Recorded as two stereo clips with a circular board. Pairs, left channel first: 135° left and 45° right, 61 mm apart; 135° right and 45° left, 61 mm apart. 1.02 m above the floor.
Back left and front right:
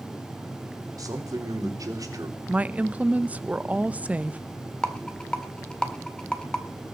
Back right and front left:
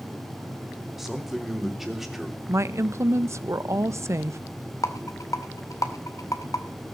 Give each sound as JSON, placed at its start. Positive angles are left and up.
{"t": 1.0, "sound": "a man speaking", "azimuth_deg": -40, "distance_m": 3.0}
{"t": 2.5, "sound": "a woman speaking", "azimuth_deg": 20, "distance_m": 0.7}
{"t": 4.8, "sound": "a rattle", "azimuth_deg": -150, "distance_m": 1.8}